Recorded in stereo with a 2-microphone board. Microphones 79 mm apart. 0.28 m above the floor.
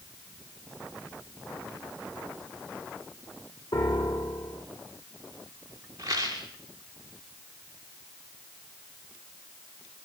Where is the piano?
85° left, 3.5 m.